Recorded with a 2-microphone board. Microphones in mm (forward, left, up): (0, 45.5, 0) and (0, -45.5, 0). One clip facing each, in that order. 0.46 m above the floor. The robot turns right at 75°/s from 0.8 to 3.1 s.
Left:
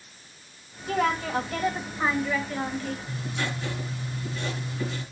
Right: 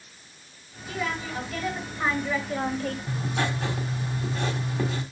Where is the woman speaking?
85° left, 2 m; by 3.0 s 120° right, 2 m.